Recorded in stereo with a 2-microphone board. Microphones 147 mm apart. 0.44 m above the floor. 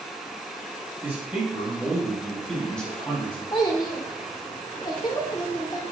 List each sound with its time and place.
1.0 s a man speaking: 10° right (ahead or behind), 3.5 m; by 3.4 s 15° left (ahead or behind), 3 m
3.5 s a child speaking: 30° left (ahead or behind), 0.9 m